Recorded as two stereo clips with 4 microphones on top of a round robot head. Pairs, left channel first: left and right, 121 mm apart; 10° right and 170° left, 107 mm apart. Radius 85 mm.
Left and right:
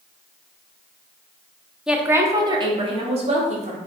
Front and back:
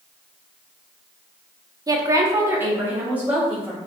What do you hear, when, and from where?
1.9 s a woman speaking: 175° right, 0.7 m; by 3.8 s 110° right, 1.4 m